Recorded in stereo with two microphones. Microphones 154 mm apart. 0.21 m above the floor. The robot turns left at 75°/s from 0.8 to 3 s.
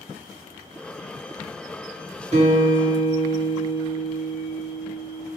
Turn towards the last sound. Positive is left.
turn(degrees=-115)